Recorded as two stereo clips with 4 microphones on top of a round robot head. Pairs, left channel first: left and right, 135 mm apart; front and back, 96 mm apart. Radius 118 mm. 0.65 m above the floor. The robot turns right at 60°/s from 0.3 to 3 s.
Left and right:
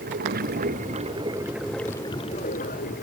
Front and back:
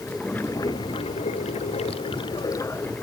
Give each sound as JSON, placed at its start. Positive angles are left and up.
{"t": 0.0, "sound": "running water", "azimuth_deg": -85}